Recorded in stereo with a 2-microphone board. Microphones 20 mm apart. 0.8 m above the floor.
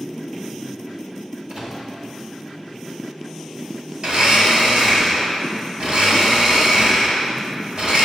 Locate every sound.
1.5 s a microwave: 45° right (ahead or behind), 1.1 m
4.0 s a blender: 65° right (ahead or behind), 1.2 m